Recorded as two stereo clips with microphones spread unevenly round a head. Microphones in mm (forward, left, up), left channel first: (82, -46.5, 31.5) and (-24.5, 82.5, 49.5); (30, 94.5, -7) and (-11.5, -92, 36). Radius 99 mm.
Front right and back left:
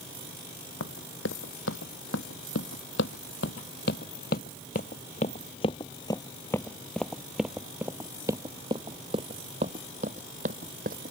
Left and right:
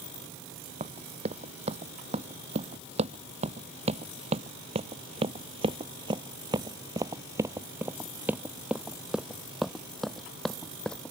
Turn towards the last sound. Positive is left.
turn(degrees=170)